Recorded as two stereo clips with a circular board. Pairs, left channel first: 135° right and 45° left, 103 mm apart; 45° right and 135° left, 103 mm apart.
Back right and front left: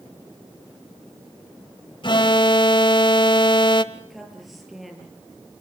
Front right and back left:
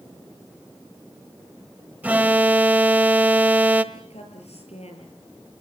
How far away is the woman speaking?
About 9 m.